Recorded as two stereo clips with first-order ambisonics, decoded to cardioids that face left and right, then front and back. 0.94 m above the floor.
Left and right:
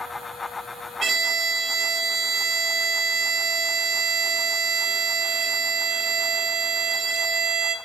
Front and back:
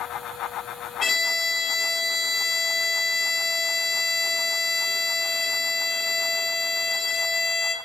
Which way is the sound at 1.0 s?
30° right.